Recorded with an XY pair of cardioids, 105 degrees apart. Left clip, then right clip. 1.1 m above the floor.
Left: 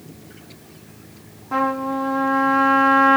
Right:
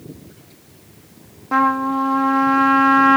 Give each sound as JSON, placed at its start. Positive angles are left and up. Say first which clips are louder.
{"t": 1.5, "sound": "a trumpet", "louder": "right 5 dB", "azimuth_deg": -40, "distance_m": 2.5}